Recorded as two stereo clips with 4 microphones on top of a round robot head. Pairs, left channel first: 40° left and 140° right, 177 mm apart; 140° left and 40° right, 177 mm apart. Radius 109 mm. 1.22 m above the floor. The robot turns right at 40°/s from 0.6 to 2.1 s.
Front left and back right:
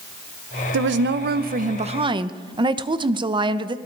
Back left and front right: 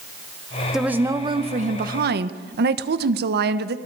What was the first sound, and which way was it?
A woman speaking, 130° right.